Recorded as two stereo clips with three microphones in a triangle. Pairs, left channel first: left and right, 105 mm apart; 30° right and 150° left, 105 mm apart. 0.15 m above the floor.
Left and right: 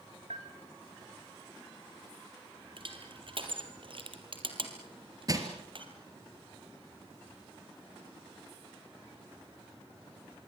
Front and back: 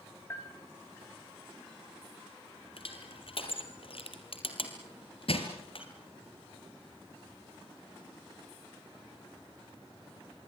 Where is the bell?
95° right, 3.5 m.